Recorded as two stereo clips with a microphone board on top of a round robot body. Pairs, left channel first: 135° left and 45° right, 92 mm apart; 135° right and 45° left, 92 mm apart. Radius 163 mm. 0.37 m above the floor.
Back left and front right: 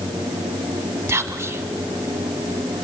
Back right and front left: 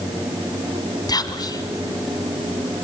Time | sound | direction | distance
1.1 | whispering | 110° right | 1.2 m